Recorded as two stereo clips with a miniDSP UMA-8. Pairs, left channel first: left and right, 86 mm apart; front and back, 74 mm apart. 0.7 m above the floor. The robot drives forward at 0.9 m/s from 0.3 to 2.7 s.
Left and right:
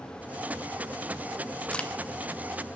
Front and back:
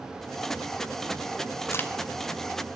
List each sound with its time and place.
1.7 s a crack: 25° left, 0.6 m; by 1.9 s 45° left, 0.6 m